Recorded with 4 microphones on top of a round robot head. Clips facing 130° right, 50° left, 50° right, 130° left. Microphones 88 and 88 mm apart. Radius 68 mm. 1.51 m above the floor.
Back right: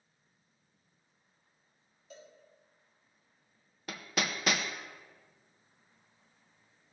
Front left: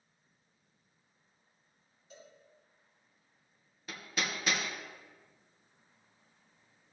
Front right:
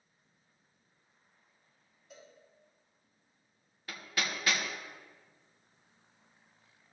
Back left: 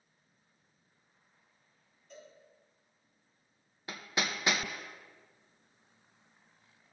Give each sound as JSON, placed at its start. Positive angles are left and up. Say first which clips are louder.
{"t": 2.1, "sound": "a cowbell", "louder": "back right 2 dB, back left 2 dB", "azimuth_deg": -135, "distance_m": 3.5}
{"t": 3.9, "sound": "hammering", "louder": "back right 2 dB, back left 2 dB", "azimuth_deg": -165, "distance_m": 0.7}